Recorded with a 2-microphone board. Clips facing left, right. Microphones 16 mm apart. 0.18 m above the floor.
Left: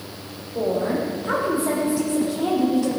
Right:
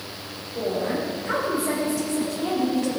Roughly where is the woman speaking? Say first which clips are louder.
Left 3 dB; left.